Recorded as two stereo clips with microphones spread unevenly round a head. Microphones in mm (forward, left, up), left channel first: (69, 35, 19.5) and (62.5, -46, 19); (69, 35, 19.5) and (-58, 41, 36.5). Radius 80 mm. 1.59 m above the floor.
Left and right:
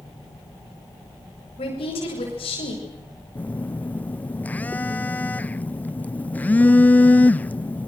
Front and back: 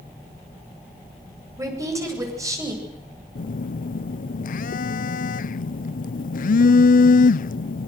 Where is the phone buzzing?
15° left, 0.7 m.